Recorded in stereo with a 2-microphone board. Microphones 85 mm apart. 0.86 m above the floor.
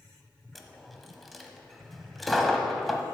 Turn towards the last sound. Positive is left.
turn(degrees=0)  # may be behind; listen again after turning